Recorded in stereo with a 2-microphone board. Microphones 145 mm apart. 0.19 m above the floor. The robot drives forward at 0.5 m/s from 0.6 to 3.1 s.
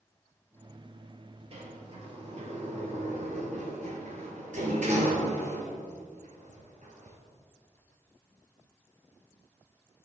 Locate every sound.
1.5 s a sliding door: 45° right (ahead or behind), 2.5 m; by 7.2 s 55° right (ahead or behind), 2.5 m